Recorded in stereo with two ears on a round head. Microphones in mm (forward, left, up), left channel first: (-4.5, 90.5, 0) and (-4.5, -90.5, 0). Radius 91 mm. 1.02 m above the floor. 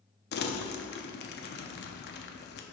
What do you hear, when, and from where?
0.3 s crumpling: 50° left (ahead or behind), 0.6 m